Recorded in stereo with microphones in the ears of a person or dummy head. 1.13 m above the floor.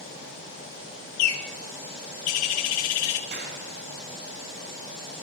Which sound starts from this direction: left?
A bird, at 1.2 s.